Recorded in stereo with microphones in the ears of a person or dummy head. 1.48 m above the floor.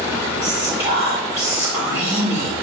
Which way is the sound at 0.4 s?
25° right (ahead or behind).